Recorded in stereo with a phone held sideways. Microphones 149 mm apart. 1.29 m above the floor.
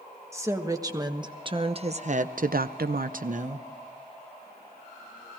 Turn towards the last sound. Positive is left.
turn(degrees=-50)  # may be behind; listen again after turning